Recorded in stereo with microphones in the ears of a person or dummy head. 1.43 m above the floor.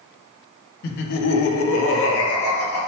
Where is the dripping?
I don't hear dripping.